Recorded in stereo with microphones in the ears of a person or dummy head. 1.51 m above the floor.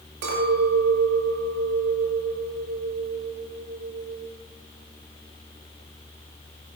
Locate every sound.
0.2 s a clink: 70° right (ahead or behind), 1.8 m